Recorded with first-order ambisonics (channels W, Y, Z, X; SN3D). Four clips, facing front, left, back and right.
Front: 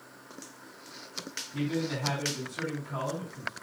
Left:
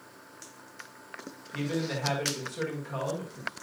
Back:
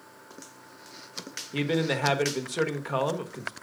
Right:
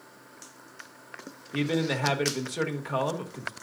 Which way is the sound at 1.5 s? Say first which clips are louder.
Right 5 dB, back 5 dB; 150° right.